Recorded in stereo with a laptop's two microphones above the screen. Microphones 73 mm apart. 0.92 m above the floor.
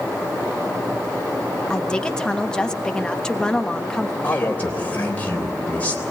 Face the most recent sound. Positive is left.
turn(degrees=20)  # may be behind; listen again after turning